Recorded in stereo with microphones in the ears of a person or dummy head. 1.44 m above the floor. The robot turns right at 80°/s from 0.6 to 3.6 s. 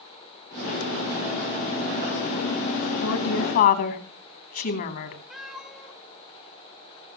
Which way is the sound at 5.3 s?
Centre (ahead or behind).